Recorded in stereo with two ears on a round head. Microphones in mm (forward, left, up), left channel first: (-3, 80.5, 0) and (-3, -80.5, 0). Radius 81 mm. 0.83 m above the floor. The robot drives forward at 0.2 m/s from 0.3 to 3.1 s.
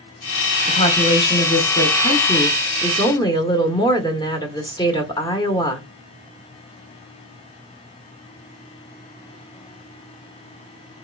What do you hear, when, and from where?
0.7 s a woman speaking: 25° left (ahead or behind), 0.9 m; by 5.9 s 20° left (ahead or behind), 1.1 m